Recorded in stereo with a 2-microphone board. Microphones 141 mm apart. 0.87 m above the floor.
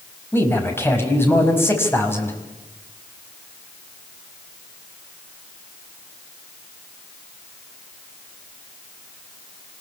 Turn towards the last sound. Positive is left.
turn(degrees=15)  # may be behind; listen again after turning